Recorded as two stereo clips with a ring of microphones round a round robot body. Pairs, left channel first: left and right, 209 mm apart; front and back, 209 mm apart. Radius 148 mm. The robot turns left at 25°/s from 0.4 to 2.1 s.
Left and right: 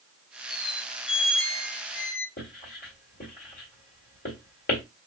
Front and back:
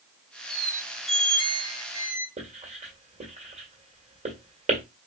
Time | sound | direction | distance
0.5 | a squeak | 140° left | 1.0 m
2.4 | writing | 130° left | 2.0 m